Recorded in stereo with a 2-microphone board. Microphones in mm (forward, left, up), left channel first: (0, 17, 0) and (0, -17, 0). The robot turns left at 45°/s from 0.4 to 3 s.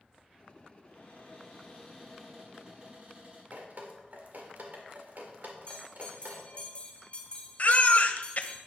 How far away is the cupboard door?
About 6 m.